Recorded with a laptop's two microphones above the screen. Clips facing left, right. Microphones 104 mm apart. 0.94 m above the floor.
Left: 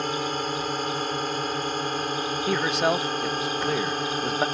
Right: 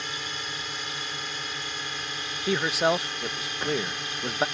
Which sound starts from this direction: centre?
A man speaking, at 2.5 s.